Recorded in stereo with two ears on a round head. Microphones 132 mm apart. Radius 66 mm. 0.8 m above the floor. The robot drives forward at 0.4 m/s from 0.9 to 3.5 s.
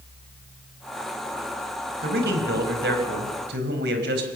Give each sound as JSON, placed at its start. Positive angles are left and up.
{"t": 2.0, "sound": "a man speaking", "side_deg": -75, "distance_m": 4.5}